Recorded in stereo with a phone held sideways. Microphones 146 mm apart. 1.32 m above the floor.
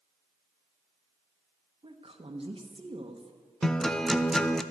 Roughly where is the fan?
I don't hear a fan.